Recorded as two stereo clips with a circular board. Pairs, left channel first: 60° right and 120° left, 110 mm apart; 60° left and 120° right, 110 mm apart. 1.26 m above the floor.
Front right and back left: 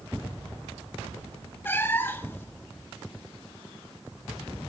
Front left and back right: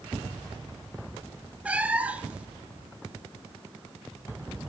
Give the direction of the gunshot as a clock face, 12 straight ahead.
No gunshot in this recording.